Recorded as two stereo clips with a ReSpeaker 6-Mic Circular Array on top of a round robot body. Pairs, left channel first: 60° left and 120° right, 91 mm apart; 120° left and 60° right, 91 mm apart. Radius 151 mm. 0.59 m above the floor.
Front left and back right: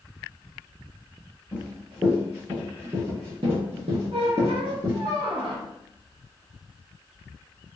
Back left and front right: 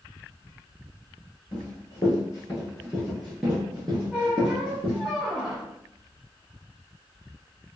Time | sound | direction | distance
1.5 | running footsteps | 160° left | 1.3 m
4.1 | a squeak | 145° right | 0.9 m